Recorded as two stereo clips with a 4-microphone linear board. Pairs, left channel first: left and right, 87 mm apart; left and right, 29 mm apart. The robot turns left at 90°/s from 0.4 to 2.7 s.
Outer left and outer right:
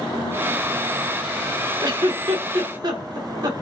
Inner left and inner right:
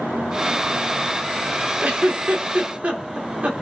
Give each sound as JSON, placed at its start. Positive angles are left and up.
{"t": 1.8, "sound": "a giggle", "side_deg": -45, "distance_m": 2.0}